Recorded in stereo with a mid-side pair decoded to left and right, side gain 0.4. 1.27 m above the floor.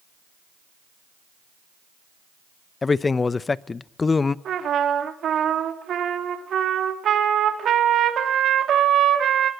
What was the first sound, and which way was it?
A man speaking, 35° left.